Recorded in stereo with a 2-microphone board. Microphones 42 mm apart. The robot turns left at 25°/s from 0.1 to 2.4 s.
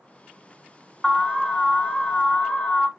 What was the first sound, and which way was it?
An alarm, 10° left (ahead or behind).